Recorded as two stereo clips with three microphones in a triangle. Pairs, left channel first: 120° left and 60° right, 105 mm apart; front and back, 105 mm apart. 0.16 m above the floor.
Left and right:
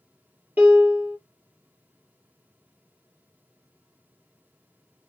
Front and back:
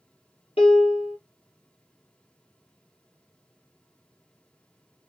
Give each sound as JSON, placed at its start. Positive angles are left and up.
{"t": 0.6, "sound": "a piano", "azimuth_deg": 10, "distance_m": 2.5}